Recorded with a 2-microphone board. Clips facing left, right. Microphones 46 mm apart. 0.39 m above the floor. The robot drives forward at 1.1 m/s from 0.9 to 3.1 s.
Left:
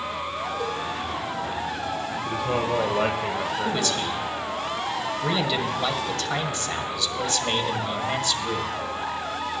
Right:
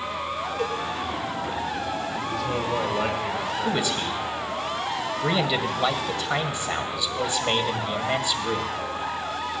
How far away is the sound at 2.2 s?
About 1.3 m.